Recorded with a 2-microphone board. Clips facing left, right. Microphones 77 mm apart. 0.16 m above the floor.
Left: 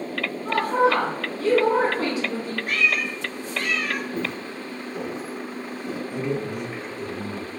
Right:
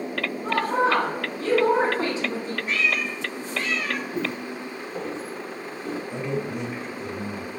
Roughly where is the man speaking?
Centre.